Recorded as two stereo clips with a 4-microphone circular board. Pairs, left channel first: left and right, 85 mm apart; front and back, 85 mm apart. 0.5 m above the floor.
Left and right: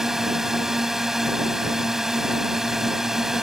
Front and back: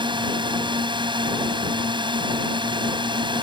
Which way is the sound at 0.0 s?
175° right.